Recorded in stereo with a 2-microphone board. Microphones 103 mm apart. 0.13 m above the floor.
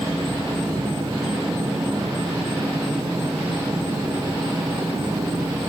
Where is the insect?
45° right (ahead or behind), 3.5 m.